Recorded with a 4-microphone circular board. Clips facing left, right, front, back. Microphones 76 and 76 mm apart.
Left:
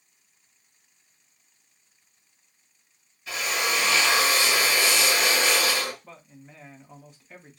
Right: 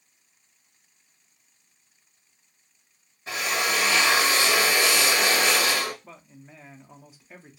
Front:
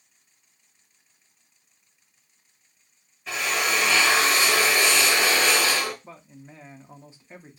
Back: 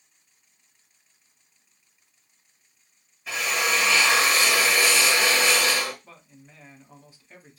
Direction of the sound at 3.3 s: 95° right.